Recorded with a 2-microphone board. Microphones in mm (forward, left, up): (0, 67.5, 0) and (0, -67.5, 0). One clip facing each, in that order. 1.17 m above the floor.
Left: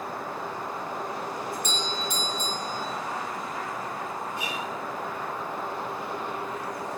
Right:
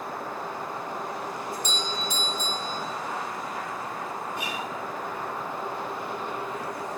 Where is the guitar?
60° right (ahead or behind), 5 m.